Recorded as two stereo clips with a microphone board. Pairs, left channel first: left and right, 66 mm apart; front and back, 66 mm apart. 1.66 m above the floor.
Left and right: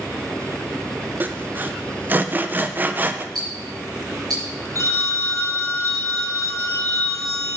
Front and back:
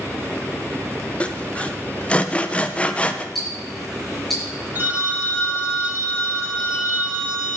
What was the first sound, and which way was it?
Sawing, 55° right.